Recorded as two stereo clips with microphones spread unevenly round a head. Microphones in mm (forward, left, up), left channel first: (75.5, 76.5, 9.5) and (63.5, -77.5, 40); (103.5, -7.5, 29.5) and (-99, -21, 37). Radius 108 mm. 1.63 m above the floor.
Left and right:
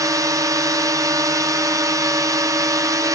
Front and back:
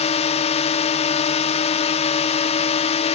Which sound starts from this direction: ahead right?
A drone, at 0.0 s.